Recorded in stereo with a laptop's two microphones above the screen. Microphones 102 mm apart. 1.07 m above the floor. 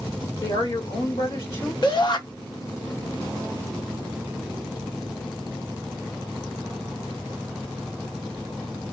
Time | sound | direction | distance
0.4 | a woman speaking | 70° left (ahead or behind) | 1.9 m
1.8 | a shout | 50° left (ahead or behind) | 0.7 m